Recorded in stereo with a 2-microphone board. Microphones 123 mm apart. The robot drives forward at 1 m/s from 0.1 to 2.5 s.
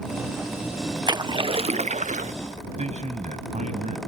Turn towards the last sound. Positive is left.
turn(degrees=-70)  # may be behind; listen again after turning